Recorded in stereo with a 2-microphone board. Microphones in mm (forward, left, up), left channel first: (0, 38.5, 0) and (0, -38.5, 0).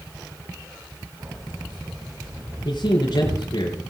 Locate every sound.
1.2 s keys jangling: 70° right (ahead or behind), 8 m
2.6 s a man speaking: 70° left (ahead or behind), 4 m